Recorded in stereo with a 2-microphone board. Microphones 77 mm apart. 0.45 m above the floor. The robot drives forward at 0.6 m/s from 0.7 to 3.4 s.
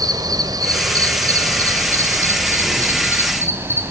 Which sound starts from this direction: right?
An insect, at 0.0 s.